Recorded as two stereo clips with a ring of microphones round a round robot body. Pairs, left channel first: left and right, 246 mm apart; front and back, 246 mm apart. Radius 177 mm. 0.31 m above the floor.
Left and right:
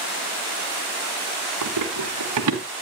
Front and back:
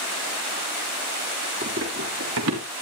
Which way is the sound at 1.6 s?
115° right.